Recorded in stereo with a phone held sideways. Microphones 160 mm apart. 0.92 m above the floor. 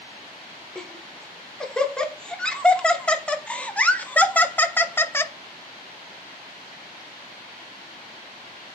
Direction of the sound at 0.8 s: 5° left (ahead or behind).